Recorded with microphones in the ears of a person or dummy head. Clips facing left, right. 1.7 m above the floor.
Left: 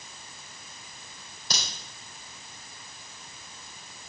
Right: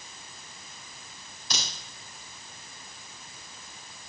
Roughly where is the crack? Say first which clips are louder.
Even; left.